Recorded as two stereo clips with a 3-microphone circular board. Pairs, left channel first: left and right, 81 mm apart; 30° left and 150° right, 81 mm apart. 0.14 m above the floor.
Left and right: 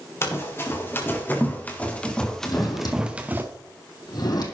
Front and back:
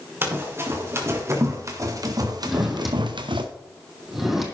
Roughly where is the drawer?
Behind left.